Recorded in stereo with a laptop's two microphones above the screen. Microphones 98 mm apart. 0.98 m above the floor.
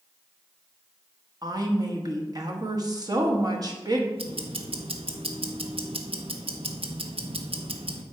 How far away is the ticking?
About 1.1 m.